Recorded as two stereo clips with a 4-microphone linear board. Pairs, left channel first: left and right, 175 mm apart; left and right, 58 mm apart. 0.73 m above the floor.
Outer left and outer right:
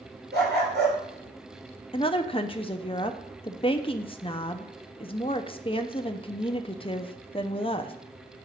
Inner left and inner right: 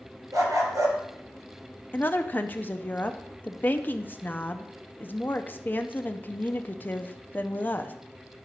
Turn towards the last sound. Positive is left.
turn(degrees=30)  # may be behind; listen again after turning